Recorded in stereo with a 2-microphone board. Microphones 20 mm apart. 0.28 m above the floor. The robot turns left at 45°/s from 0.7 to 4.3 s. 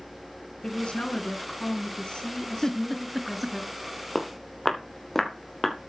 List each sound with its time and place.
0.6 s a woman speaking: 115° left, 3 m; by 3.6 s 15° right, 3 m
2.6 s a giggle: 15° left (ahead or behind), 0.7 m; by 3.6 s 25° right (ahead or behind), 0.7 m
4.2 s footsteps: 15° left (ahead or behind), 3 m; by 5.8 s 10° left (ahead or behind), 4 m